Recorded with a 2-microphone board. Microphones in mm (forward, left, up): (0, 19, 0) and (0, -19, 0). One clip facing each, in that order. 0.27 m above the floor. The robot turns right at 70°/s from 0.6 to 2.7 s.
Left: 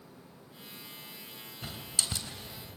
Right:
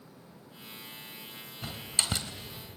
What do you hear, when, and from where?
1.6 s a door slam: 20° right (ahead or behind), 2.5 m; by 2.3 s 60° right (ahead or behind), 2.5 m